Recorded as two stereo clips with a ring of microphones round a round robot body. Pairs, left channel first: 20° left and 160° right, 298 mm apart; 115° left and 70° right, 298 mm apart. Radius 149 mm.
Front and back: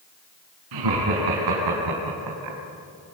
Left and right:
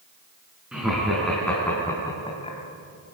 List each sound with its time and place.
0.7 s laughter: 155° right, 4.5 m; by 2.6 s straight behind, 2.5 m